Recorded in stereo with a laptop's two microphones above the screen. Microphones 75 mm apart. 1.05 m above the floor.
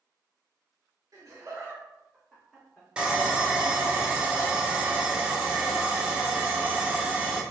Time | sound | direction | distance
1.1 | laughter | 50° right (ahead or behind) | 1.4 m
3.0 | sawing | 15° right (ahead or behind) | 1.0 m